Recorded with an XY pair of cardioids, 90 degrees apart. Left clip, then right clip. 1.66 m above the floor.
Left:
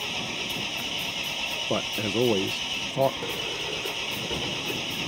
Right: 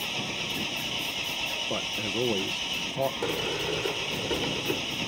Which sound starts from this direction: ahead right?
A sliding door, at 3.2 s.